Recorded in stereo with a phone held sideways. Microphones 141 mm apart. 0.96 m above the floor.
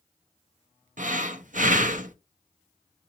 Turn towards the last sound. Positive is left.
turn(degrees=-65)  # may be behind; listen again after turning